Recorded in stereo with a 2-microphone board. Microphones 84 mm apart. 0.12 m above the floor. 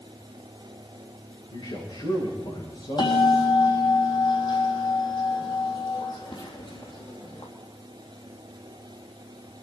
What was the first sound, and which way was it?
A man speaking, 75° left (ahead or behind).